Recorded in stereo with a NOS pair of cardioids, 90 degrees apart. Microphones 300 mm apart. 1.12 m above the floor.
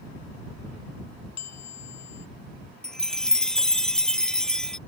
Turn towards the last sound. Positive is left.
turn(degrees=0)